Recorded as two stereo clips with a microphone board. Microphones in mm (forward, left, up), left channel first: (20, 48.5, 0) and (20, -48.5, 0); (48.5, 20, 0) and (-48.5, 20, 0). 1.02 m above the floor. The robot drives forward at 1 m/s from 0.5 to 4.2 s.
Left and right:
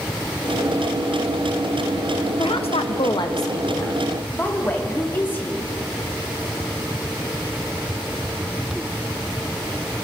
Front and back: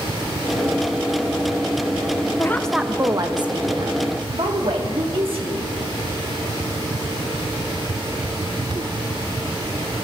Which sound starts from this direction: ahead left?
A woman speaking, at 2.4 s.